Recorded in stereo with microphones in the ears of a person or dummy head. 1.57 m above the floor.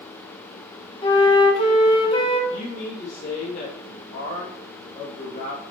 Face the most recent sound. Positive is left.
turn(degrees=50)  # may be behind; listen again after turning